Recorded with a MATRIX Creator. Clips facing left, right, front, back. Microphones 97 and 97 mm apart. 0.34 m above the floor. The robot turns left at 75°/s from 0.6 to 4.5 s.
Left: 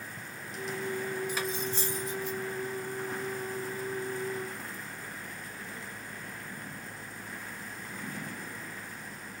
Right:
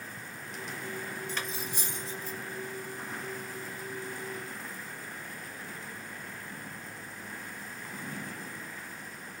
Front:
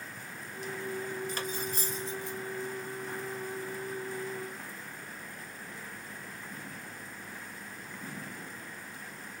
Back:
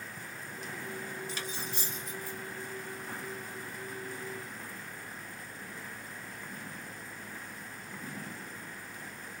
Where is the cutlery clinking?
15° left, 0.6 m; by 2.4 s 65° right, 0.6 m.